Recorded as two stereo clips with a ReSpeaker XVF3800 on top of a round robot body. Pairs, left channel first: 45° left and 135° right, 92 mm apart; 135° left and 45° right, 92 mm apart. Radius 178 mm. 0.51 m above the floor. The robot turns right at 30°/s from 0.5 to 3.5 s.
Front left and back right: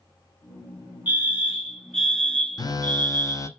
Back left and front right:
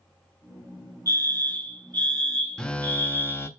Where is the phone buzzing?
55° left, 1.0 m; by 3.5 s 85° left, 1.0 m.